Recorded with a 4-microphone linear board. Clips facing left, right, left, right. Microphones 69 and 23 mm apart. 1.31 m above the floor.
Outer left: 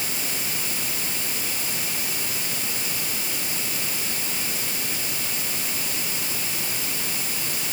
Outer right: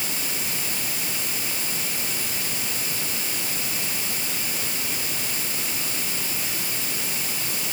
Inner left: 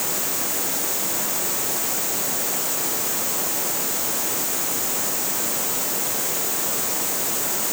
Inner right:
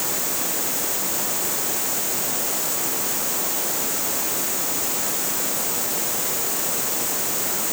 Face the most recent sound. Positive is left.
No sound to turn to.